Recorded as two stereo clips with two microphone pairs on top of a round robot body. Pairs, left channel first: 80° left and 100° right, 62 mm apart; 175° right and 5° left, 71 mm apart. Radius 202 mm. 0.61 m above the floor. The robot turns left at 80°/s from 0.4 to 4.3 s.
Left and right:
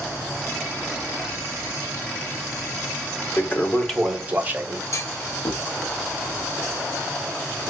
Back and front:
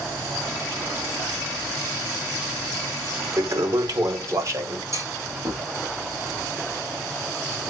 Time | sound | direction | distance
3.4 | a toilet flushing | 45° left | 1.5 m
4.9 | a clunk | 50° left | 1.8 m